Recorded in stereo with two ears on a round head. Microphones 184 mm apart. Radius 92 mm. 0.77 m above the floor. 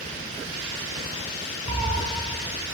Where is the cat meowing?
70° right (ahead or behind), 1.5 m.